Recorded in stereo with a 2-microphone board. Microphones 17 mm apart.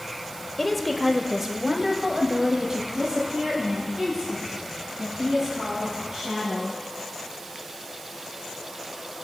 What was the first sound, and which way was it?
A woman speaking, 10° left (ahead or behind).